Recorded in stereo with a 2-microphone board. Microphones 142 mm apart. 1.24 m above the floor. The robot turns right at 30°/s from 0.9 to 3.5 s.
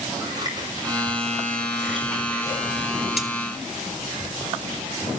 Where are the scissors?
30° right (ahead or behind), 5.5 m; by 2.6 s 20° left (ahead or behind), 5.5 m.